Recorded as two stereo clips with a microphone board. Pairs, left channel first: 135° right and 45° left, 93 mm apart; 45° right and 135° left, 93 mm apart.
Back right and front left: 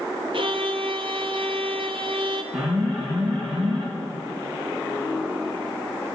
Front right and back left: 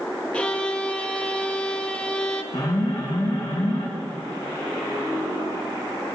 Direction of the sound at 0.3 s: 35° left.